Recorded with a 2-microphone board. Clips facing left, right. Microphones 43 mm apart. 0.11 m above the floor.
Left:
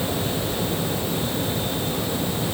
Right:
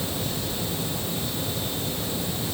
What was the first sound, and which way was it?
Only background noise.